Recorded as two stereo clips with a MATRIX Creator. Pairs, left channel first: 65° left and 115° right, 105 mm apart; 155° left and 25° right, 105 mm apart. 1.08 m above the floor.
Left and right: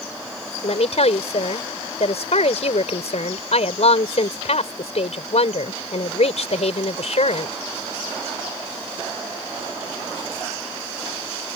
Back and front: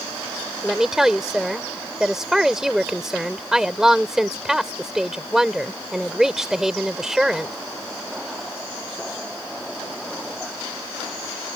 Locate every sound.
0.6 s a woman speaking: 65° left